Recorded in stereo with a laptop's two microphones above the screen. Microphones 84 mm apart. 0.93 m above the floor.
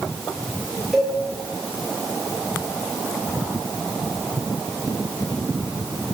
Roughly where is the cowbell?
Centre.